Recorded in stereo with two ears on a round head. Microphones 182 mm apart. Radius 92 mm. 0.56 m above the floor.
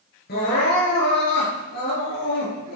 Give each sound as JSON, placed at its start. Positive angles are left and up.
{"t": 0.3, "sound": "crying", "side_deg": 50, "distance_m": 7.0}